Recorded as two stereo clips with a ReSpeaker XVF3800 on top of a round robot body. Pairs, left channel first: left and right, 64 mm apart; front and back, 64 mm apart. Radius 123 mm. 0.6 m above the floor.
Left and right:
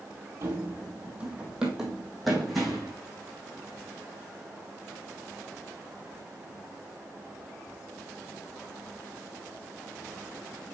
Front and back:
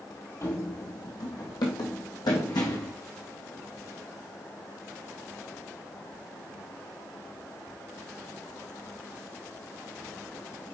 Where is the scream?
No scream in this recording.